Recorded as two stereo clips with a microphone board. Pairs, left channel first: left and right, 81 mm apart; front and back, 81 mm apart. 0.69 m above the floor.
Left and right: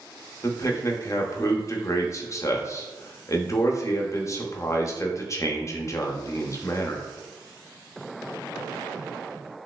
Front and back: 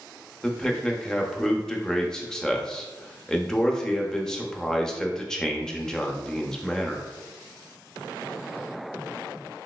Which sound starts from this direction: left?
A man speaking, at 0.4 s.